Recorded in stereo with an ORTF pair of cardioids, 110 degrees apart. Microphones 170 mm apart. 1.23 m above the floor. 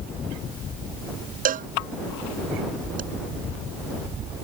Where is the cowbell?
50° right.